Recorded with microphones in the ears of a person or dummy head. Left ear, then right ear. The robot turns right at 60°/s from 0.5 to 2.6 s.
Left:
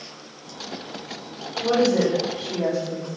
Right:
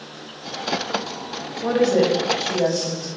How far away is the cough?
I don't hear a cough.